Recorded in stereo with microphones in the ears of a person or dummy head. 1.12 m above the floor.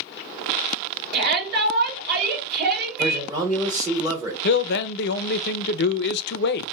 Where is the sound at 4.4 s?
60° left (ahead or behind), 0.5 m.